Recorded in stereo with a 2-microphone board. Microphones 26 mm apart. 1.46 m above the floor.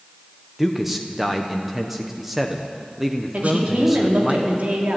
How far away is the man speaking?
About 0.9 m.